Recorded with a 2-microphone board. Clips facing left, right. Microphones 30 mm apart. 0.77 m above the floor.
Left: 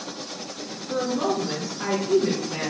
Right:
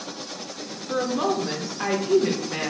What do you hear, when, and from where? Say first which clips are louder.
0.9 s a woman speaking: right 1 dB; 45° right (ahead or behind), 0.7 m